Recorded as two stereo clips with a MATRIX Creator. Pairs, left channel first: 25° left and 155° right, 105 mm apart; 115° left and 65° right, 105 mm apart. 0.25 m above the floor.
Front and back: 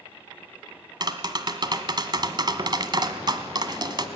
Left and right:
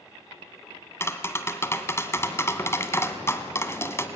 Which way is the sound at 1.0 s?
170° left.